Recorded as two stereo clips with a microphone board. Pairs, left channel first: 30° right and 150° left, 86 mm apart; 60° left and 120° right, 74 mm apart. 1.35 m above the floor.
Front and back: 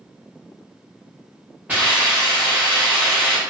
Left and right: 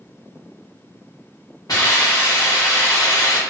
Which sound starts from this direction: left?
A hiss, at 1.7 s.